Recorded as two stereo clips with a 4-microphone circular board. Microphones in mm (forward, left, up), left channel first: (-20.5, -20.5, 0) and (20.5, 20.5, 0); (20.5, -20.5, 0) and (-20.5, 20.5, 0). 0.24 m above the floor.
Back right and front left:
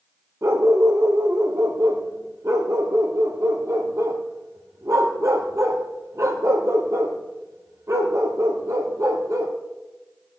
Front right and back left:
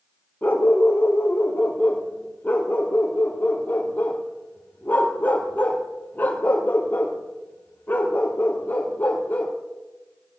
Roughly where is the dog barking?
Ahead.